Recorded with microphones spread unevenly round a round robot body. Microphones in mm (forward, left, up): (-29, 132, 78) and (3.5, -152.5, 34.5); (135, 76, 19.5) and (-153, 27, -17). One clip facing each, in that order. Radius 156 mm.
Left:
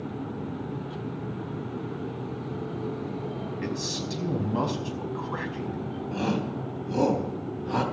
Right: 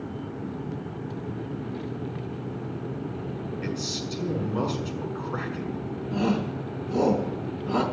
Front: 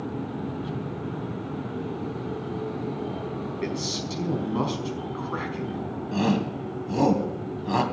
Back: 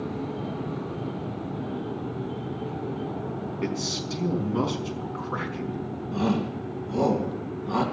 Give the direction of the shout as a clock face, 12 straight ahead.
11 o'clock.